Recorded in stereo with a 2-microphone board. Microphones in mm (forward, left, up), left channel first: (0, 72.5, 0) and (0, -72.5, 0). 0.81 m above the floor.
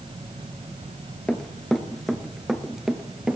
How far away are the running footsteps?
About 0.9 m.